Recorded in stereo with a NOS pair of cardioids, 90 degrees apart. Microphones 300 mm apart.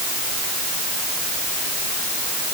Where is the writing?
I don't hear writing.